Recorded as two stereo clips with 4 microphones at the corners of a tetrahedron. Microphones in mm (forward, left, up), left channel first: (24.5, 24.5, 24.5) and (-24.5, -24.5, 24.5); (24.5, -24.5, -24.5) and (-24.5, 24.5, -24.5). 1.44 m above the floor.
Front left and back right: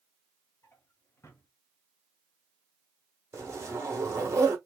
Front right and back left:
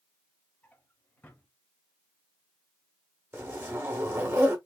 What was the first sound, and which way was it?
A drawer, 10° left.